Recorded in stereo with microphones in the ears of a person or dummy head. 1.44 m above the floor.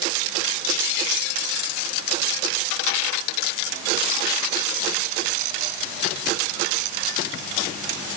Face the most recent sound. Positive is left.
No sound to turn to.